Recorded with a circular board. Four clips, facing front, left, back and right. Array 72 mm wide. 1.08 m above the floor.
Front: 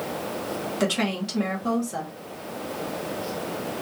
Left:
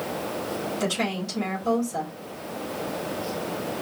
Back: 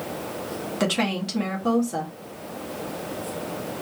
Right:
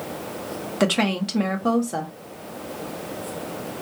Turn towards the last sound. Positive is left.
turn(degrees=-100)